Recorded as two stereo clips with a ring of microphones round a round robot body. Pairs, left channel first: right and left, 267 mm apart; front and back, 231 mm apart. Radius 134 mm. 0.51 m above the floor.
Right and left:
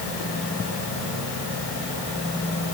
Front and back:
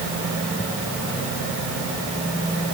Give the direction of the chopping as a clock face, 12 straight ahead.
I don't hear chopping.